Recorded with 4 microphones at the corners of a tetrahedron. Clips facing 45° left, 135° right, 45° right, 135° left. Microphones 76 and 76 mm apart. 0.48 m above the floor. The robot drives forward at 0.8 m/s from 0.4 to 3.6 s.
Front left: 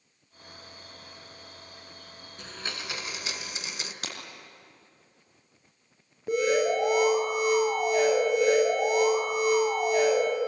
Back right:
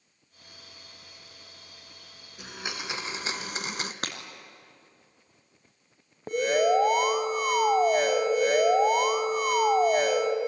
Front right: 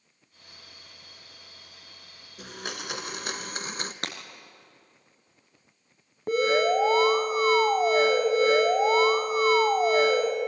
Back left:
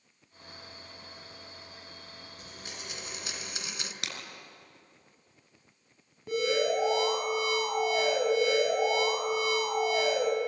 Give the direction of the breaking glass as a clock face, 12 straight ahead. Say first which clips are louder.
Back right 2 dB, front right 4 dB; 3 o'clock.